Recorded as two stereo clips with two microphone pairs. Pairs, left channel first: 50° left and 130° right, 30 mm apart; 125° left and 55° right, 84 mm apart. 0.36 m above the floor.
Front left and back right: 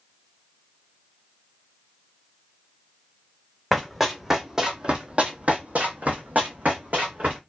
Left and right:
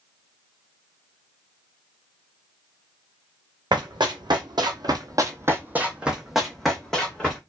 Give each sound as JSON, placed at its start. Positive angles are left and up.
{"t": 3.7, "sound": "running footsteps", "azimuth_deg": -40, "distance_m": 1.0}